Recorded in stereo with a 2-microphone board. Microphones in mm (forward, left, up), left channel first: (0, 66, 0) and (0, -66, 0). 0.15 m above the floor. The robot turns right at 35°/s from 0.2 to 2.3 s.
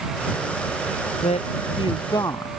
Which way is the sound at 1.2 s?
115° left.